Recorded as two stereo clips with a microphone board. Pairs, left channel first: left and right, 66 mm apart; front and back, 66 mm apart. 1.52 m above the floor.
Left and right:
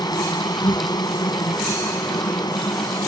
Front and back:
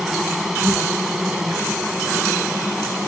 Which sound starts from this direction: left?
An insect, at 0.0 s.